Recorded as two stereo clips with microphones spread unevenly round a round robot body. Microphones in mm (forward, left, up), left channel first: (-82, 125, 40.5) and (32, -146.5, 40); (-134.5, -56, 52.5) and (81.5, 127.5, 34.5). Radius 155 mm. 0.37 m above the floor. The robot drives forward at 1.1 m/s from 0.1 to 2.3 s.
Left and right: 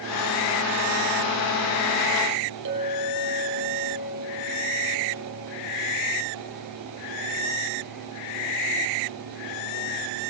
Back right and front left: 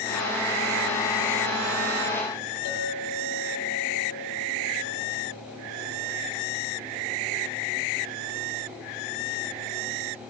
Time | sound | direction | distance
2.6 | a clink | 115° right | 9 m